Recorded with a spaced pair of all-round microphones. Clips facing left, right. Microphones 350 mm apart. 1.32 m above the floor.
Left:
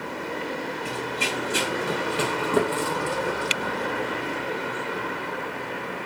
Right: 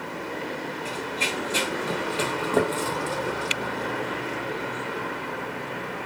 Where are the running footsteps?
20° left (ahead or behind), 1.7 m.